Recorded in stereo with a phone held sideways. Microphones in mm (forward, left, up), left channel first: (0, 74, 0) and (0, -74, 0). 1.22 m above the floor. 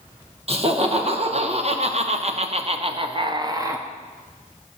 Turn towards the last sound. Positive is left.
turn(degrees=-20)  # may be behind; listen again after turning